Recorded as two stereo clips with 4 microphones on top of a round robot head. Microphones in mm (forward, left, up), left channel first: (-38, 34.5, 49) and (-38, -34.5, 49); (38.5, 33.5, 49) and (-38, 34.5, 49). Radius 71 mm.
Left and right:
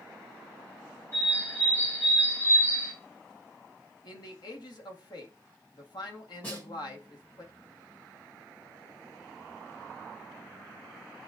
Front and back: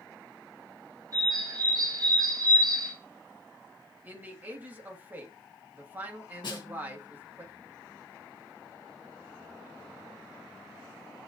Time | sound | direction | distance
1.1 | a bird | 145° left | 4 m
4.0 | a man speaking | 110° left | 1.6 m
6.4 | a snare drum | 20° left | 1.8 m